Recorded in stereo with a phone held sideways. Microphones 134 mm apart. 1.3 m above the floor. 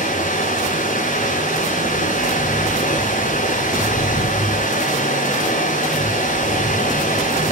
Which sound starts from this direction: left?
Running water, at 0.0 s.